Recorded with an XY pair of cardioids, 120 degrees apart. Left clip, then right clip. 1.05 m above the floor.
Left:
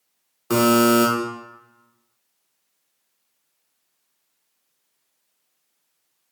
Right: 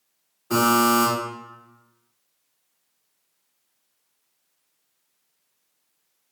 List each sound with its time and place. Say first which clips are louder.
0.5 s a buzzer: left 2 dB; 60° left, 1.3 m